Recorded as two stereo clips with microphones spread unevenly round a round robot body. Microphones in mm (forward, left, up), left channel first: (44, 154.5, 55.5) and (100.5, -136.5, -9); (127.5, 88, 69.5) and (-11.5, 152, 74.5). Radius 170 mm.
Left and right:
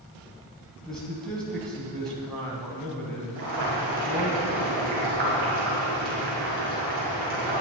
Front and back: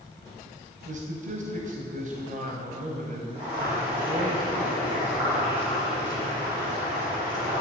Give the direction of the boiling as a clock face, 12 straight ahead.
5 o'clock.